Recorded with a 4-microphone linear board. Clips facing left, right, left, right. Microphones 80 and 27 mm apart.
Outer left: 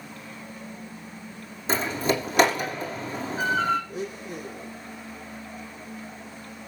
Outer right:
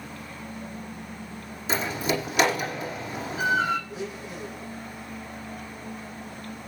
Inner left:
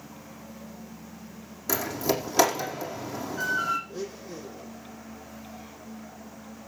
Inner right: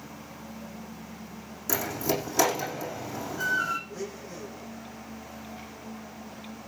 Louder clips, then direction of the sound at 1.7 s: Outer left 2 dB, inner left 1 dB; 35° left (ahead or behind).